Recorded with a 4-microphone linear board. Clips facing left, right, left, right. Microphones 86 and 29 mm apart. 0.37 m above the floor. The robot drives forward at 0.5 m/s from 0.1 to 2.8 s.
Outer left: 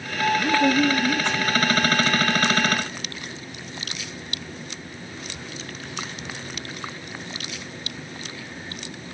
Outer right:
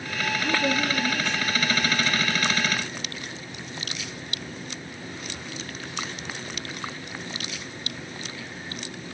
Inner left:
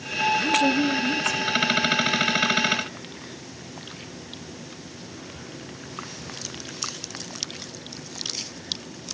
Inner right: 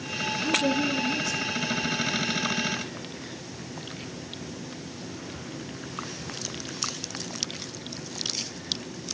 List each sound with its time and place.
0.4 s a woman speaking: 75° left (ahead or behind), 5.5 m; by 1.7 s 80° left, 5 m